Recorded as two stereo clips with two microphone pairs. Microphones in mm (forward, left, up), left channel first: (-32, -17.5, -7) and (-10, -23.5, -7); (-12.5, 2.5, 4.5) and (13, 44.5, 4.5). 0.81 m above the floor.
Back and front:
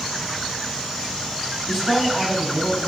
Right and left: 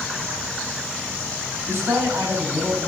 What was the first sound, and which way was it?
A woman speaking, 85° left.